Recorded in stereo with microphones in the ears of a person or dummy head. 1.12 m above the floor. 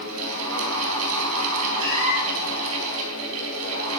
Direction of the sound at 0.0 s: 80° right.